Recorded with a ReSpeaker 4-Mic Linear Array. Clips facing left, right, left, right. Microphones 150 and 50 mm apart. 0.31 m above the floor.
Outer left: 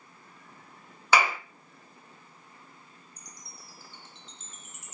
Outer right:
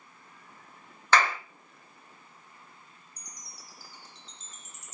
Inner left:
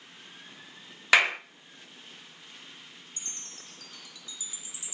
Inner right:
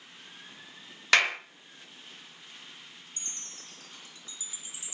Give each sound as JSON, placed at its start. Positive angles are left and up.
{"t": 1.1, "sound": "a clap", "side_deg": 10, "distance_m": 0.7}
{"t": 3.2, "sound": "a chime", "side_deg": -35, "distance_m": 1.8}